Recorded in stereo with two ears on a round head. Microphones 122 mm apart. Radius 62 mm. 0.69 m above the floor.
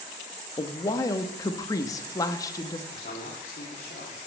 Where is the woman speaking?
25° left (ahead or behind), 0.7 m.